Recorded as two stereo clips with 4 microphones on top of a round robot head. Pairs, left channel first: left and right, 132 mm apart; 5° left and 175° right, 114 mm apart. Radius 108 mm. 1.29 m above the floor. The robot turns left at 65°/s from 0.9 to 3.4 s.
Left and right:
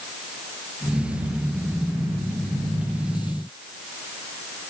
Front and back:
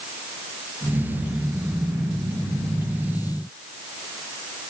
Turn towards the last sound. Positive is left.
No sound to turn to.